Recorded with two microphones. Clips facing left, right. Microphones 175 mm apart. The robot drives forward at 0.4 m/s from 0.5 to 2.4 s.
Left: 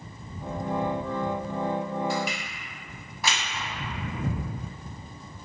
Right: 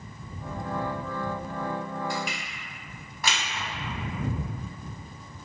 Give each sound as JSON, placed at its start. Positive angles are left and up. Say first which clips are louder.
{"t": 2.1, "sound": "crushing", "louder": "left 3 dB", "side_deg": 0, "distance_m": 1.1}